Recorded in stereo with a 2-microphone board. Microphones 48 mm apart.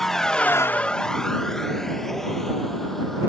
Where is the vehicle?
10° left (ahead or behind); by 3.3 s 5° left (ahead or behind).